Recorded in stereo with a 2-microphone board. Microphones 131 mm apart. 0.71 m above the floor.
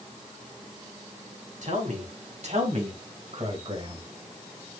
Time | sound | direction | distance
1.6 | a man speaking | 70° right (ahead or behind) | 5 m